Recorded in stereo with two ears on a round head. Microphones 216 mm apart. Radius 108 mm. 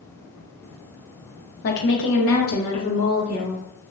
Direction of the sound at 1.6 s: 40° left (ahead or behind).